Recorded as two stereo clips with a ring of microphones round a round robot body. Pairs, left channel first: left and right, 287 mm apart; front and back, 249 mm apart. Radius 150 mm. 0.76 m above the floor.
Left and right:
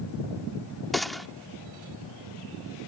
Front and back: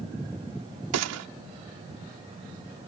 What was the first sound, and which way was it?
A gunshot, straight behind.